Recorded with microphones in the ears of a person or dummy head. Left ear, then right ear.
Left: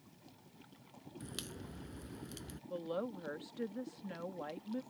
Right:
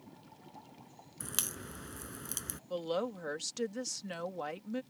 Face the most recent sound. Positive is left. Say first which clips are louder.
# right 5 dB
turn(degrees=-80)